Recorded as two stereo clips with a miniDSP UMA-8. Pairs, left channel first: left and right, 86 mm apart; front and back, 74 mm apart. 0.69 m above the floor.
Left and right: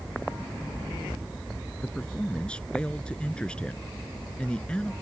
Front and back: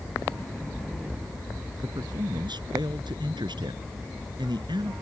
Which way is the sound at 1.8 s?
170° left.